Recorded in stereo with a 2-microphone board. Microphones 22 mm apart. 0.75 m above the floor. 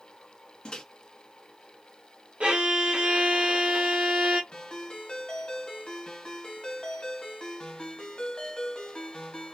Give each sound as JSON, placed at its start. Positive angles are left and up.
{"t": 0.7, "sound": "a microwave", "side_deg": 45, "distance_m": 0.6}
{"t": 2.4, "sound": "a violin", "side_deg": -70, "distance_m": 0.9}
{"t": 4.5, "sound": "a ringtone", "side_deg": 45, "distance_m": 1.3}